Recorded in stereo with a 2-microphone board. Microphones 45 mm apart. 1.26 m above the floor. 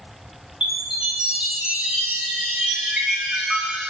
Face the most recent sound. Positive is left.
turn(degrees=-20)  # may be behind; listen again after turning